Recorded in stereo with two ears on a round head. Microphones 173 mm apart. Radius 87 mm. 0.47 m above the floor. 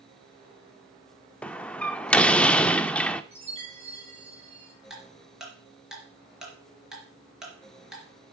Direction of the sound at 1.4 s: 5° left (ahead or behind).